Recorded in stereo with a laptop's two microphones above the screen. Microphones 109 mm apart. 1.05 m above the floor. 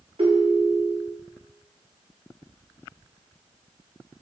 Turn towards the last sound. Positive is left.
turn(degrees=-60)  # may be behind; listen again after turning